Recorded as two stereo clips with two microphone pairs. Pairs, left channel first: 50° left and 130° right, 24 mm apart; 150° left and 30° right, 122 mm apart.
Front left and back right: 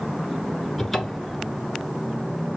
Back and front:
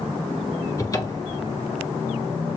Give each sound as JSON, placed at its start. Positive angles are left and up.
{"t": 0.8, "sound": "a cupboard door", "azimuth_deg": 125, "distance_m": 1.0}